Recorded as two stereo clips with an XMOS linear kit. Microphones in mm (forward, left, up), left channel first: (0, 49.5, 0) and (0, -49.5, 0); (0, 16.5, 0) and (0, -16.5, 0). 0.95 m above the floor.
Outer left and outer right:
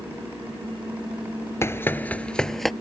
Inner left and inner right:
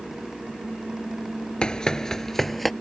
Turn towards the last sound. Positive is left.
turn(degrees=0)  # may be behind; listen again after turning